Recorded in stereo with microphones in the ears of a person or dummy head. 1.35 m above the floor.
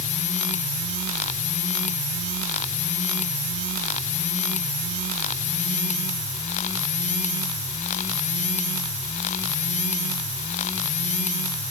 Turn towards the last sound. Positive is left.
No sound to turn to.